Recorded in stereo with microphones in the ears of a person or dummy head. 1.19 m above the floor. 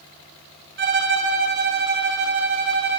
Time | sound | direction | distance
0.8 | a violin | 45° right (ahead or behind) | 0.6 m